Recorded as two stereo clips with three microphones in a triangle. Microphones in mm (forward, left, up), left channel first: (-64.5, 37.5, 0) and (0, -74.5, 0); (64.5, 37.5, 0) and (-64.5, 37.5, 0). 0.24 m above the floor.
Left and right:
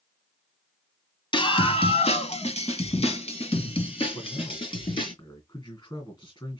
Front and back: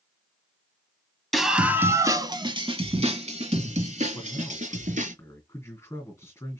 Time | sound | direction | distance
1.3 | a scream | 90° left | 1.4 m
4.1 | a man speaking | 70° left | 2 m